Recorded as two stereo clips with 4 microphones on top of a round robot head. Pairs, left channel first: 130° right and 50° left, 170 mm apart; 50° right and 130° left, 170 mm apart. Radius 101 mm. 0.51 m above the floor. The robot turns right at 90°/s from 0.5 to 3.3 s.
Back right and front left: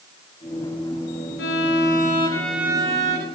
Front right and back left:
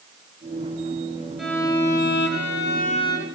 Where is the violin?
140° right, 5 m; by 3.3 s 25° left, 5 m.